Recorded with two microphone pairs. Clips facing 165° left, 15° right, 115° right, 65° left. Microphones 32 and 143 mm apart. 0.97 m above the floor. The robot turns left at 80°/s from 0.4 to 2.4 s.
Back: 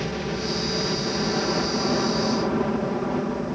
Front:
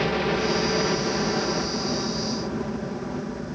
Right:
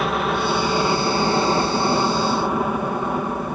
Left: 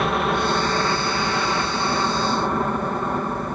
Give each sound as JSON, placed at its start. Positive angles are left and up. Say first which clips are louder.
{"t": 0.0, "sound": "a helicopter", "louder": "front 5 dB, even", "azimuth_deg": -25}